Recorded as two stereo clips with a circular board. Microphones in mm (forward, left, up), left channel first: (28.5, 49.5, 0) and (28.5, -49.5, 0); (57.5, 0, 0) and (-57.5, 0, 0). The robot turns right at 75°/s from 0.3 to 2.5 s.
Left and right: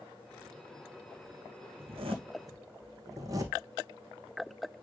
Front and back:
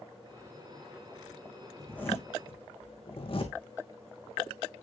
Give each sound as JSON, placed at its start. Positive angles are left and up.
{"t": 1.8, "sound": "a zipper", "azimuth_deg": -90, "distance_m": 2.5}